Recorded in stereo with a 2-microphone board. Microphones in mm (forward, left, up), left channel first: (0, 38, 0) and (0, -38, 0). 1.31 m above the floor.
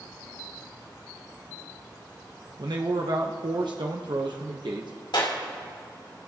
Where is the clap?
75° left (ahead or behind), 2.5 m.